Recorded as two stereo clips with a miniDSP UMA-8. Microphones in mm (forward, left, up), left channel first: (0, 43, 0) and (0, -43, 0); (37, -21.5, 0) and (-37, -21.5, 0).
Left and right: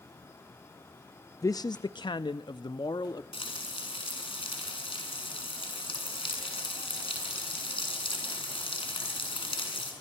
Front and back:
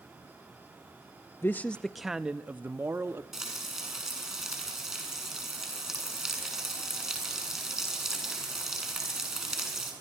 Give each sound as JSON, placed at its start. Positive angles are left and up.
{"t": 1.4, "sound": "a man speaking", "azimuth_deg": 50, "distance_m": 0.6}
{"t": 3.3, "sound": "frying", "azimuth_deg": 95, "distance_m": 7.0}